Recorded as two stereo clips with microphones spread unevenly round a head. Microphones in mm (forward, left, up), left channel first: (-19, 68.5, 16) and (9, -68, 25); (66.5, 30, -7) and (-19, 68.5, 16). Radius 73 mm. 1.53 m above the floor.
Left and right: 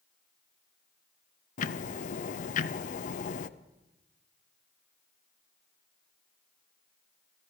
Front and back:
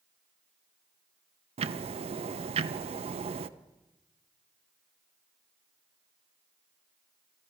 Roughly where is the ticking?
Behind left.